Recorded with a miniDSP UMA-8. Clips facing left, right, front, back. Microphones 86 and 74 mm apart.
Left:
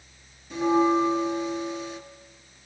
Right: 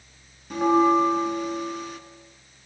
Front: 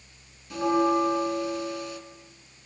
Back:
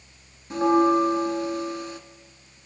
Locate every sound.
0.5 s a bell: 120° right, 2 m